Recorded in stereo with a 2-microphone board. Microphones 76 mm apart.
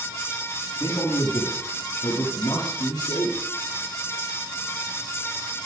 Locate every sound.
0.8 s a man speaking: 55° left (ahead or behind), 8 m; by 3.4 s 60° left (ahead or behind), 9 m